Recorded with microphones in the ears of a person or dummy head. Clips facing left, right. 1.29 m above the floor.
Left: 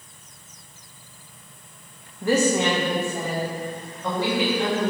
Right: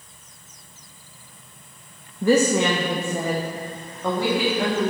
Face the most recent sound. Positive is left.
turn(degrees=-45)  # may be behind; listen again after turning